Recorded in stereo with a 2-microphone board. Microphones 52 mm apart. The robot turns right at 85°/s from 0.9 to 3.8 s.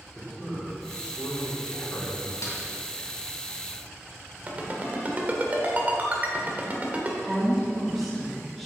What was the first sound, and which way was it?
A man speaking, 20° left.